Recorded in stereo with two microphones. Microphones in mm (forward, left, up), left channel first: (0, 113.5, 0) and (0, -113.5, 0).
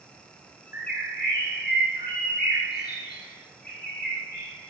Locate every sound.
0.7 s a bird: 45° left (ahead or behind), 6.5 m